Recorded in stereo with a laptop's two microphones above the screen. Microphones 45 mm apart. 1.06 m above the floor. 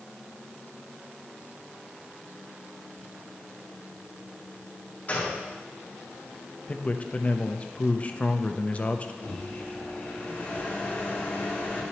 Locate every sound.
5.1 s a gunshot: 35° left (ahead or behind), 3 m
6.7 s a man speaking: 30° left (ahead or behind), 0.7 m
9.2 s a microwave: 35° left (ahead or behind), 3.5 m